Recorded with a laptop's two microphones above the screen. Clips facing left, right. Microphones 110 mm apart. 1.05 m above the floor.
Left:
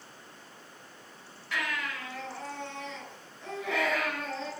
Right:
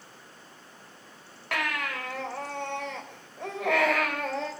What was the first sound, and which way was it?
A baby crying, 65° right (ahead or behind).